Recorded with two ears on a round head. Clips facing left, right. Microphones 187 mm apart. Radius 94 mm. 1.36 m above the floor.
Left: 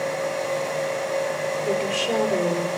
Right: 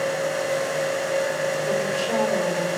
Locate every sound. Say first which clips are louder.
1.6 s a woman speaking: even; 40° left (ahead or behind), 5.5 m